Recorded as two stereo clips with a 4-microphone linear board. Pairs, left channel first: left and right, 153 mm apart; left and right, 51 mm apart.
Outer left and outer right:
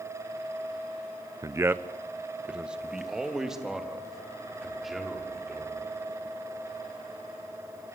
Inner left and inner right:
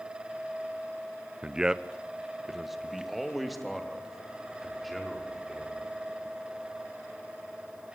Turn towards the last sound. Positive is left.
turn(degrees=0)  # may be behind; listen again after turning